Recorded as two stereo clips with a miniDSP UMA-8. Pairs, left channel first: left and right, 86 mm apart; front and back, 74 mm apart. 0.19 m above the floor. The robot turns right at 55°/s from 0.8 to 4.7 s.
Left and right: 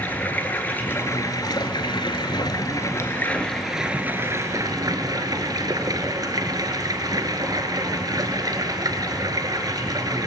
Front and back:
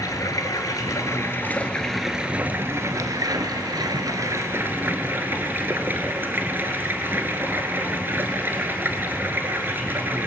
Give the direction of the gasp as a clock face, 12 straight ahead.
I don't hear a gasp.